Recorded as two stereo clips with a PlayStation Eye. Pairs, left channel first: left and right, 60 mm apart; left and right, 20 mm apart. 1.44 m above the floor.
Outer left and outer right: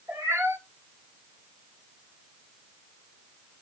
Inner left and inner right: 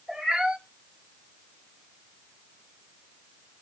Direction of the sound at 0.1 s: 55° right (ahead or behind).